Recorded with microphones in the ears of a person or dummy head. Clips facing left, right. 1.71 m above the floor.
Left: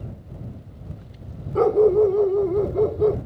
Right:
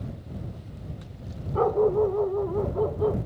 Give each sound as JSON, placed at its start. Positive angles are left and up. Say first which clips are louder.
{"t": 1.6, "sound": "a dog barking", "louder": "left 6 dB", "side_deg": 35}